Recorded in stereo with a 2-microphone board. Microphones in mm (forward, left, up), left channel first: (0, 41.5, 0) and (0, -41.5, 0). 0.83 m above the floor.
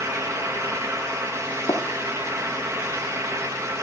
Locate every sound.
1.7 s tapping: 60° left (ahead or behind), 0.7 m